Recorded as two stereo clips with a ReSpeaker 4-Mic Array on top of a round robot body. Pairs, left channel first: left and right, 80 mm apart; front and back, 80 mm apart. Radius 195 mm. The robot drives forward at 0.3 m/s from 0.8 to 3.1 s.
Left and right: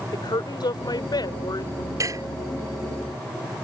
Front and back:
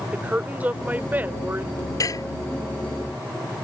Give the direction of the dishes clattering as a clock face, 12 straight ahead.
1 o'clock.